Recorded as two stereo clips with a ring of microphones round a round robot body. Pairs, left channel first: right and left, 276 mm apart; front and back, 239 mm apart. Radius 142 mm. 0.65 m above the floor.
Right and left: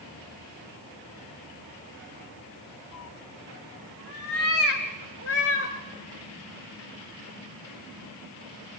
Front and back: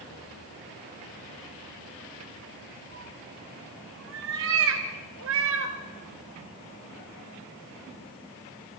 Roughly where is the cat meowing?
Behind right.